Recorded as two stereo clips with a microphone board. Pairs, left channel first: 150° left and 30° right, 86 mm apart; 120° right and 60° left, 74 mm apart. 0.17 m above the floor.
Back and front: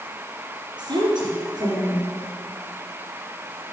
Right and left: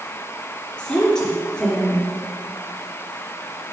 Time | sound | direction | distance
0.8 | a woman speaking | 45° right | 3.5 m